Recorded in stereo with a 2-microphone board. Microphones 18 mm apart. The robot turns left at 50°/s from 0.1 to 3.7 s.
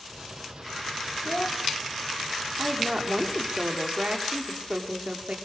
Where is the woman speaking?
10° right, 5.5 m; by 5.4 s 65° right, 5.5 m.